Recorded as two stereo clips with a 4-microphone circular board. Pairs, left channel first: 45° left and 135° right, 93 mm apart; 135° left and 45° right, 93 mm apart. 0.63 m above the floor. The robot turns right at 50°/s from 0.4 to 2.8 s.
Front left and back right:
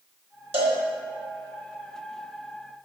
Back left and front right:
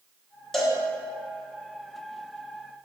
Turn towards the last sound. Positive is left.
turn(degrees=-25)